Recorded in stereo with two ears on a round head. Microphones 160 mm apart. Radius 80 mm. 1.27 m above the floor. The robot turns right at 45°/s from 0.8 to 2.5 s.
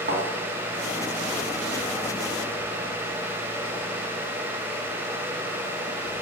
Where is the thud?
60° right (ahead or behind), 2.5 m.